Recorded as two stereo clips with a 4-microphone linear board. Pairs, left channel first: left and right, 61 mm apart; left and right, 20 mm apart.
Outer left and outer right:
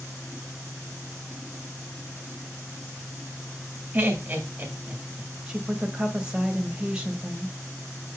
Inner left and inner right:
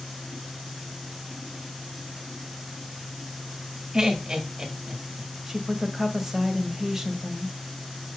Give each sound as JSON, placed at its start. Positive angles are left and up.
{"t": 3.9, "sound": "laughter", "side_deg": -30, "distance_m": 2.0}
{"t": 5.5, "sound": "a woman speaking", "side_deg": -15, "distance_m": 1.4}